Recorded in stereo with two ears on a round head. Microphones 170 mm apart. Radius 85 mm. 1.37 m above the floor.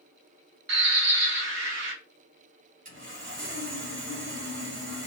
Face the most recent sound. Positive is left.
turn(degrees=-45)  # may be behind; listen again after turning